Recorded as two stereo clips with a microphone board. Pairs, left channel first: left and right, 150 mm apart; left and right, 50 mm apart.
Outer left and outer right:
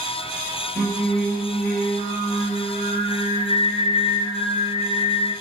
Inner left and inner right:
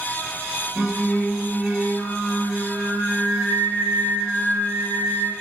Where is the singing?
45° right (ahead or behind), 1.4 m.